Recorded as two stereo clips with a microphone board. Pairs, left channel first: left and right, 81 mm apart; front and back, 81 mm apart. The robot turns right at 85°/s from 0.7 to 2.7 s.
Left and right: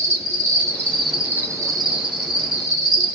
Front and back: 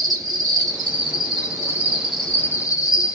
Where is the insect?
145° left, 1.0 m; by 3.1 s 45° right, 1.0 m.